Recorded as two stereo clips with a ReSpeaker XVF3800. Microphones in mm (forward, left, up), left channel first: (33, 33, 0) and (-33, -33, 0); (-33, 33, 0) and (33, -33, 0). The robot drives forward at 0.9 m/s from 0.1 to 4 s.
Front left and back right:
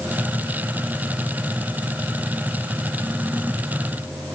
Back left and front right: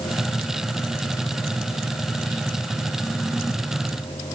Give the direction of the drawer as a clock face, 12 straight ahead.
No drawer in this recording.